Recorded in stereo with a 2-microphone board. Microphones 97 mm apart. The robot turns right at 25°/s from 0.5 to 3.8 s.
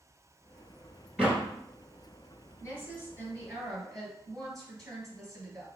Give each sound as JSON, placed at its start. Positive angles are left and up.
{"t": 1.2, "sound": "a door slam", "side_deg": -10, "distance_m": 1.5}
{"t": 2.6, "sound": "a woman speaking", "side_deg": -15, "distance_m": 2.0}